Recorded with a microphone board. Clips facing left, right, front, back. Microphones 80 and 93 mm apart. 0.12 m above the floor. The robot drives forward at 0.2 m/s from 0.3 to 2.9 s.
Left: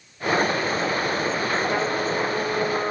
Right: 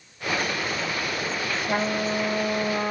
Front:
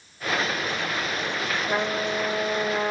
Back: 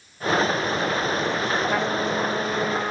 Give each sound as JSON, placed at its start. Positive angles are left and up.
{"t": 1.7, "sound": "a trumpet", "azimuth_deg": -70, "distance_m": 1.8}